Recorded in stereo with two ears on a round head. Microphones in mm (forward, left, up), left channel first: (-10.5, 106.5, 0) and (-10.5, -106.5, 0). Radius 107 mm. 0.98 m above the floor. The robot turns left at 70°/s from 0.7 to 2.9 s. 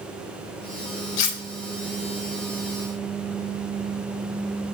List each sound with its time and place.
1.2 s cutlery clinking: 75° left (ahead or behind), 0.6 m; by 1.4 s 60° left (ahead or behind), 0.6 m